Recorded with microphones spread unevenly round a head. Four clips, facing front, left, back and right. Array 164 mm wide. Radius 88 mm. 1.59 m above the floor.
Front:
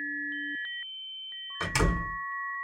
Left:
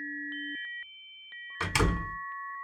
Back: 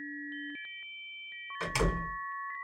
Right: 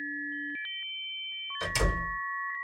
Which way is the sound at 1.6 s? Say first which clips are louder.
Left 2 dB, front 3 dB; 50° left.